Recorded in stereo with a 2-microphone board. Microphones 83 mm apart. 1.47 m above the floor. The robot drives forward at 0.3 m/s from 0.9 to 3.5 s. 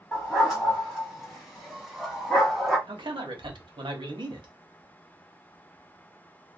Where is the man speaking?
75° right (ahead or behind), 0.8 m; by 4.5 s 70° right (ahead or behind), 0.8 m.